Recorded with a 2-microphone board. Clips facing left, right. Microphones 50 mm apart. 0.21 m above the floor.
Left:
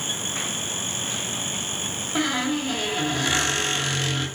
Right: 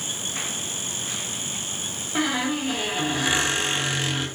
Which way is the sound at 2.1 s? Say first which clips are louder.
Even; 10° right (ahead or behind).